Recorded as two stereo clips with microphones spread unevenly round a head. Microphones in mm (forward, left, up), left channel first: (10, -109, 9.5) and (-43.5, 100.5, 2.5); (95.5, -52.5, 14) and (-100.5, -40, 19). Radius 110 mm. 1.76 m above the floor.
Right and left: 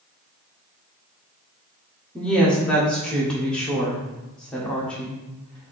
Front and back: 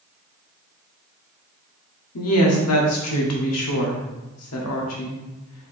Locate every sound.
2.1 s a woman speaking: 10° left, 1.1 m